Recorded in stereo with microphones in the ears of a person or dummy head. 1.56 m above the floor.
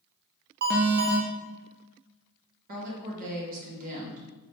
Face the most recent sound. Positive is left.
turn(degrees=-50)  # may be behind; listen again after turning